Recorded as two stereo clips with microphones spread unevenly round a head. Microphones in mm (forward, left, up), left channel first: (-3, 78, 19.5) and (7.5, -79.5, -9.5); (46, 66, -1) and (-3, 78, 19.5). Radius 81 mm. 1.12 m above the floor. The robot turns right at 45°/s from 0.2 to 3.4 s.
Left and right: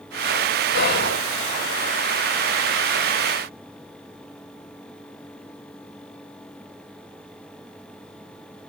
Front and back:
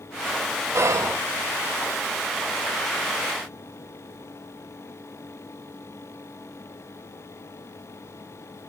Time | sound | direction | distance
0.7 | whispering | 120° left | 0.6 m